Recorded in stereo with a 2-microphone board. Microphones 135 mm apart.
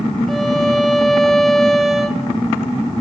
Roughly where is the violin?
Centre.